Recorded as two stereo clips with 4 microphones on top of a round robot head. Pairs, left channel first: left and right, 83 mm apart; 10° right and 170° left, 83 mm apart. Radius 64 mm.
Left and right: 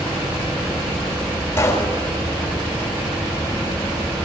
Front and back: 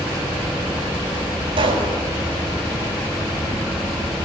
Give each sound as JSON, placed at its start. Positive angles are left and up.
{"t": 1.6, "sound": "a pop", "azimuth_deg": 150, "distance_m": 6.0}